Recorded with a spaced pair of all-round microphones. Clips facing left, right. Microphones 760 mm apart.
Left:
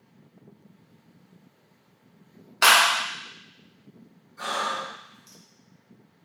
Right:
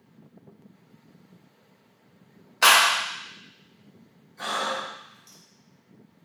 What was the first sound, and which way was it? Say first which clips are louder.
A clap: even; 50° left (ahead or behind).